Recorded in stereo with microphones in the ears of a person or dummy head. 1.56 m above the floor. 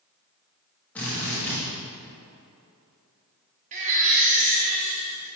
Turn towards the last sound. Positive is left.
turn(degrees=-35)  # may be behind; listen again after turning